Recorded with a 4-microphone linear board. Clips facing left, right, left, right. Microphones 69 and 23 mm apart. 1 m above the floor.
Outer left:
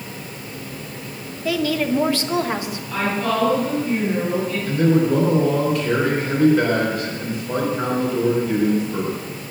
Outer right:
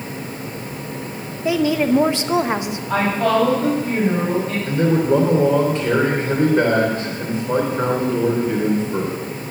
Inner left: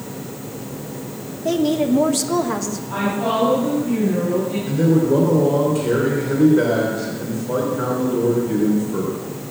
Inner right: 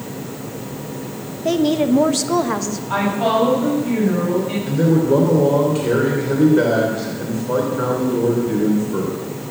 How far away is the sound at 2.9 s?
About 6.5 m.